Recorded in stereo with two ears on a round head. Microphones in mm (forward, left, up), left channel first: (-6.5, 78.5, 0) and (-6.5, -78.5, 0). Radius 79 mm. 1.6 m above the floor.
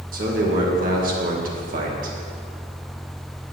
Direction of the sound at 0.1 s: 55° right (ahead or behind).